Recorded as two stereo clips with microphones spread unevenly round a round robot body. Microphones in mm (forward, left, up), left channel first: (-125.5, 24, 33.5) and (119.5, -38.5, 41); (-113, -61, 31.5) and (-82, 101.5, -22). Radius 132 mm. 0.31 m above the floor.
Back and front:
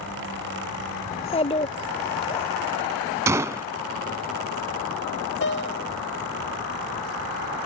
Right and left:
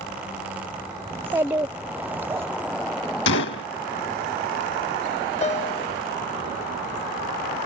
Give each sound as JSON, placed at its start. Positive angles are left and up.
{"t": 1.1, "sound": "a child speaking", "azimuth_deg": 120}
{"t": 3.3, "sound": "a gunshot", "azimuth_deg": -95}
{"t": 5.4, "sound": "a piano", "azimuth_deg": -150}